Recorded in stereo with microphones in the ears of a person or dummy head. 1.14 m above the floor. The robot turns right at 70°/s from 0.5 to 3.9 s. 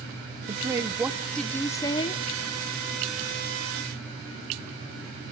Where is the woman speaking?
20° right (ahead or behind), 0.5 m; by 2.2 s 25° left (ahead or behind), 0.5 m.